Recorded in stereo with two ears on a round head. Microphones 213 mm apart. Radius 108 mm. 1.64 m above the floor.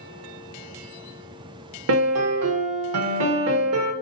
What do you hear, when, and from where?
1.9 s a piano: 75° right (ahead or behind), 0.7 m